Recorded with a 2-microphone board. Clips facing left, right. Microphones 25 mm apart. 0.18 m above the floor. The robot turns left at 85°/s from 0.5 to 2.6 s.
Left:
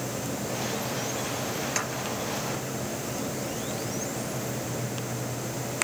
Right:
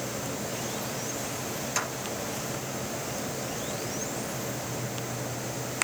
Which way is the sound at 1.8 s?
20° left (ahead or behind).